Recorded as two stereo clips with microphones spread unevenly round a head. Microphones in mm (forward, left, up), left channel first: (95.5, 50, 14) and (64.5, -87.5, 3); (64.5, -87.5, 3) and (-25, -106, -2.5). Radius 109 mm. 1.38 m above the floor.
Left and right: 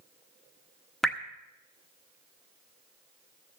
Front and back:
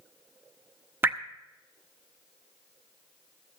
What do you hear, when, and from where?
1.0 s dripping: 155° left, 0.7 m